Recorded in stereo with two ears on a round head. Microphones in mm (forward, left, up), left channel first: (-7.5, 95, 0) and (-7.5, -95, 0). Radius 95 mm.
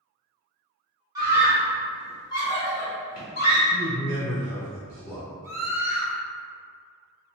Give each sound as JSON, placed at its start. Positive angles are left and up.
{"t": 1.1, "sound": "a scream", "side_deg": -20, "distance_m": 1.1}
{"t": 3.7, "sound": "a man speaking", "side_deg": 15, "distance_m": 1.5}
{"t": 5.4, "sound": "a scream", "side_deg": -15, "distance_m": 1.3}